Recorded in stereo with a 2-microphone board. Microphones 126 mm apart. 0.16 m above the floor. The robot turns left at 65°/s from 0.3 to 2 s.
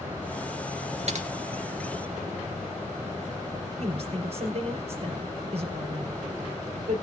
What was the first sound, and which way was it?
Typing on a keyboard, 60° right (ahead or behind).